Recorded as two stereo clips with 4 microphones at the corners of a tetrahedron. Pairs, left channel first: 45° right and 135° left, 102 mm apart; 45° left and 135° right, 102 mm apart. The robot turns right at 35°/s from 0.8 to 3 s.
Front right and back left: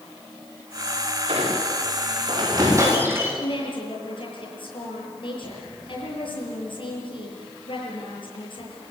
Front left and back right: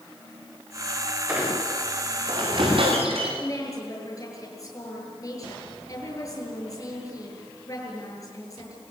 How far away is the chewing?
I don't hear chewing.